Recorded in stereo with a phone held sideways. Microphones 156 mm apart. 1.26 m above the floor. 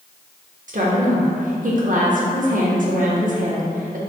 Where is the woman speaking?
55° right (ahead or behind), 0.9 m.